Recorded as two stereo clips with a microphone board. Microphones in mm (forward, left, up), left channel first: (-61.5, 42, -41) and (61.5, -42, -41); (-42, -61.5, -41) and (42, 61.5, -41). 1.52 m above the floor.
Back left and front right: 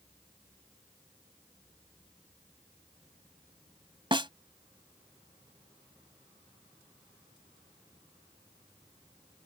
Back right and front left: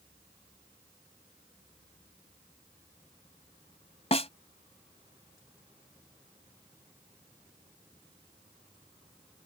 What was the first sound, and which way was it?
A snare drum, 85° right.